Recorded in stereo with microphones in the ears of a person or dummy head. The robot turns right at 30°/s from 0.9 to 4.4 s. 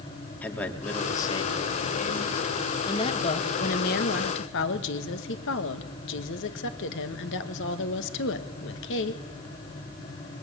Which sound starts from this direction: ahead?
A man speaking, at 0.4 s.